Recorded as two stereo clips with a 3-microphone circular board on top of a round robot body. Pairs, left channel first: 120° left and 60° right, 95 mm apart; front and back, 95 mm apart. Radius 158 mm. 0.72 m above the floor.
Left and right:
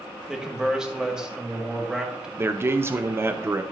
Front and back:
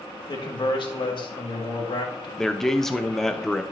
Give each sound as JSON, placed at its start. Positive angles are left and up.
{"t": 0.3, "sound": "a man speaking", "azimuth_deg": 25, "distance_m": 1.9}
{"t": 2.4, "sound": "a man speaking", "azimuth_deg": -80, "distance_m": 0.8}